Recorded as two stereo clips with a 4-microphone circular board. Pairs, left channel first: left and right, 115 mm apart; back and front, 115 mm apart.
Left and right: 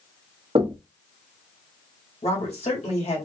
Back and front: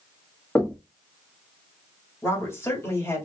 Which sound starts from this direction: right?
Knocking, at 0.6 s.